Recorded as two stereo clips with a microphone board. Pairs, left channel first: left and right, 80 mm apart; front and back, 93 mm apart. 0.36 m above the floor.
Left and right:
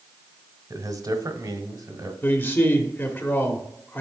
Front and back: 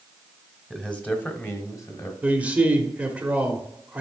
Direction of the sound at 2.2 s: 120° left.